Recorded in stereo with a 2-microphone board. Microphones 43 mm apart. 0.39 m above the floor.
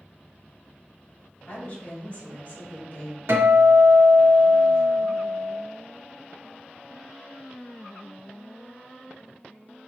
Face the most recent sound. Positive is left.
turn(degrees=-70)  # may be behind; listen again after turning